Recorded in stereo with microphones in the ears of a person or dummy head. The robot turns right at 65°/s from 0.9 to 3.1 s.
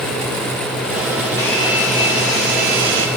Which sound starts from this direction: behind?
A hair dryer, at 1.4 s.